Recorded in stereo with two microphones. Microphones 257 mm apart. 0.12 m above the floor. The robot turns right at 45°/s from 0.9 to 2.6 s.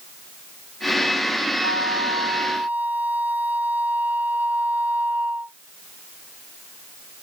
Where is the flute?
50° right; by 5.5 s 5° right.